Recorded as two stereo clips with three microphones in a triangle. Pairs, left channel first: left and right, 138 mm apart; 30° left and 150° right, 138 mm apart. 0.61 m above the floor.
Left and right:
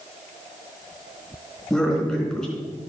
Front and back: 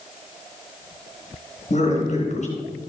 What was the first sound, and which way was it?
A man speaking, straight ahead.